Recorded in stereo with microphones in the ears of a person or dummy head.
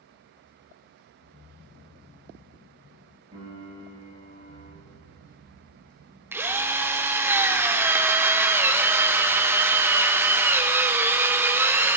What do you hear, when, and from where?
3.3 s a piano: 40° right (ahead or behind), 5.5 m
6.3 s a drill: 15° right (ahead or behind), 0.7 m